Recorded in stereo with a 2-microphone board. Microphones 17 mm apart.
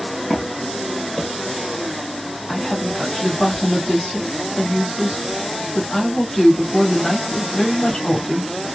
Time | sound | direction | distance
0.3 | footsteps | 50° left (ahead or behind) | 1.1 m
2.5 | a woman speaking | 25° left (ahead or behind) | 1.6 m